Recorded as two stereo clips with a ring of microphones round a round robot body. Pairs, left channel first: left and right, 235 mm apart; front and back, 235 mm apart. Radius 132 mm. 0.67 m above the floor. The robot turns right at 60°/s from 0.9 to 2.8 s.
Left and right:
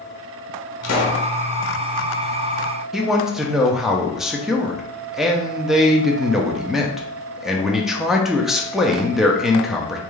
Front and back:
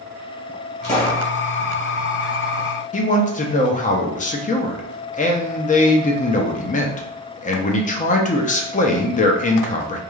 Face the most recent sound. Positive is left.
turn(degrees=-5)